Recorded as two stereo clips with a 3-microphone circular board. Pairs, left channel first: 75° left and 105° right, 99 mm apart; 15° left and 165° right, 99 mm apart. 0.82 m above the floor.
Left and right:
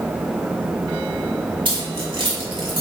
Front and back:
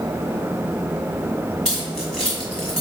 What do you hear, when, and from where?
1.6 s keys jangling: 70° right, 1.7 m